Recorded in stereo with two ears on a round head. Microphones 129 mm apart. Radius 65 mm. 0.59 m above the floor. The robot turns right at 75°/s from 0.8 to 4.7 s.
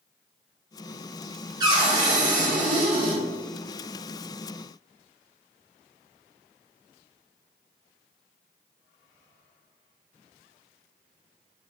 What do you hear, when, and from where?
1.6 s a cupboard door: 150° right, 1.2 m; by 3.2 s 25° right, 1.2 m